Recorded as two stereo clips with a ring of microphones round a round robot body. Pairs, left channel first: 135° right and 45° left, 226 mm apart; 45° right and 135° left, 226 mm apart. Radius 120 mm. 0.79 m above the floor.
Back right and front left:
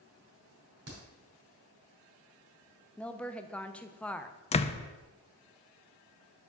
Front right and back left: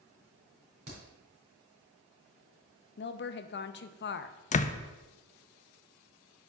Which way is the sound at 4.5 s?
85° right.